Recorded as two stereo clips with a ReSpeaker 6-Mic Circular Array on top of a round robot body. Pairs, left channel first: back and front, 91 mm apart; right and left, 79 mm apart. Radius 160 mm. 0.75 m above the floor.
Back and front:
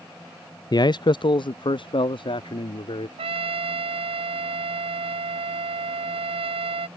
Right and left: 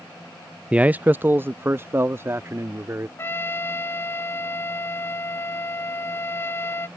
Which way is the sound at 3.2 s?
25° right.